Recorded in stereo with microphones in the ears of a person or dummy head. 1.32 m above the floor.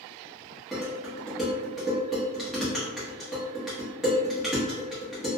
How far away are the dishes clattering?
About 1.1 m.